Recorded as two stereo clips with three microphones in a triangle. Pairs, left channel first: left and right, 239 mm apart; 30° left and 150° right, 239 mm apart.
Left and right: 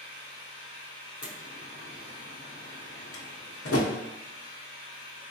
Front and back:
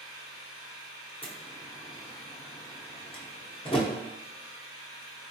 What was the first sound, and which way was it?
An engine running, 30° right.